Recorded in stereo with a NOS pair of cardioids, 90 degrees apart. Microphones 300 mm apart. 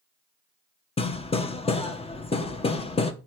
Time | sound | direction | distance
1.0 | hammering | 20° left | 1.2 m